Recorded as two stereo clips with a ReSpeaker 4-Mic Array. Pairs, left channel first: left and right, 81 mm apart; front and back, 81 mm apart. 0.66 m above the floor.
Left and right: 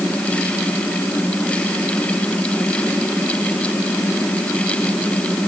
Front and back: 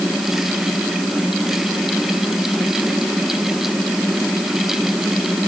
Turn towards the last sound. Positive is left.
No sound to turn to.